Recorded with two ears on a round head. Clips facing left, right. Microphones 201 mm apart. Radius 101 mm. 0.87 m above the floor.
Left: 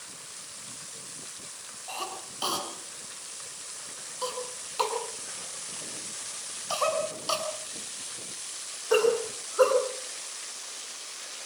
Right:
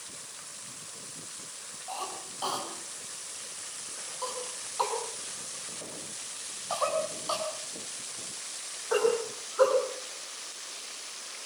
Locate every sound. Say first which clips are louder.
1.9 s a cough: left 1 dB; 40° left (ahead or behind), 8 m